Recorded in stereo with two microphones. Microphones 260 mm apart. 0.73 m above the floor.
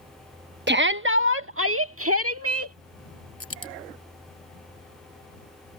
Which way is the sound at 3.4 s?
60° left (ahead or behind).